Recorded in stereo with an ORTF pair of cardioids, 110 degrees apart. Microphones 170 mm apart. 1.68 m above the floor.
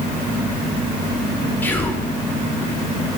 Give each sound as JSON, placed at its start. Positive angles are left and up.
{"t": 1.6, "sound": "whispering", "azimuth_deg": 10, "distance_m": 1.0}